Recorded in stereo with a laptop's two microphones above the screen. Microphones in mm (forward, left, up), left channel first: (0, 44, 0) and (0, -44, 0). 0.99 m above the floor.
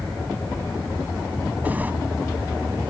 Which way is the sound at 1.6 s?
20° right (ahead or behind).